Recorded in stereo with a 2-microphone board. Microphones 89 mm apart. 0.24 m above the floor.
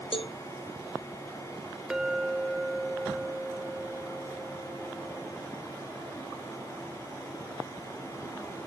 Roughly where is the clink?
Centre.